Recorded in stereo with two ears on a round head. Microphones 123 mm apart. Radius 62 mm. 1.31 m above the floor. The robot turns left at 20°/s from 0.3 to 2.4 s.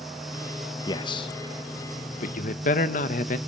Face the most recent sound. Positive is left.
turn(degrees=60)  # may be behind; listen again after turning